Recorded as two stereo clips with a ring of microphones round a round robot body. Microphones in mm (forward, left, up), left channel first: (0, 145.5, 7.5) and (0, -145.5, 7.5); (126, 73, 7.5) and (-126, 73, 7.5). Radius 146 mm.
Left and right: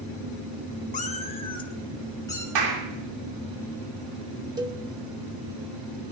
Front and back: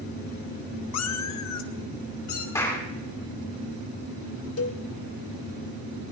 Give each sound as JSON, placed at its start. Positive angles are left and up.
{"t": 0.9, "sound": "a cat meowing", "azimuth_deg": 25, "distance_m": 0.7}
{"t": 2.5, "sound": "a clap", "azimuth_deg": -80, "distance_m": 2.5}
{"t": 4.6, "sound": "a cowbell", "azimuth_deg": -15, "distance_m": 0.9}